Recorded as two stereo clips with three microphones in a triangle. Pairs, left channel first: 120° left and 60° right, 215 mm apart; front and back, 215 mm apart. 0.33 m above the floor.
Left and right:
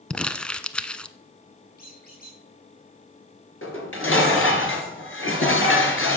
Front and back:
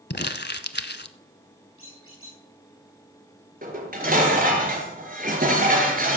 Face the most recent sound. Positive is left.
turn(degrees=135)